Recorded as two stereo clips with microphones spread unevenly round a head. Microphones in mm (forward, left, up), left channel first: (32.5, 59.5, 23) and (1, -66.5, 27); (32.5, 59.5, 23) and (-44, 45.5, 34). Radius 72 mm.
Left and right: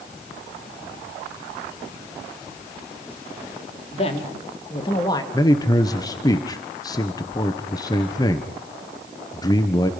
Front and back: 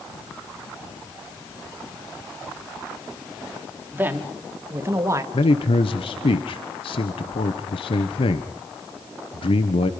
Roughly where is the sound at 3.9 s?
Behind left.